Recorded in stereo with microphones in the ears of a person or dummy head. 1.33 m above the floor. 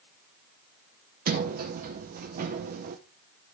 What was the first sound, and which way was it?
A sliding door, 50° right (ahead or behind).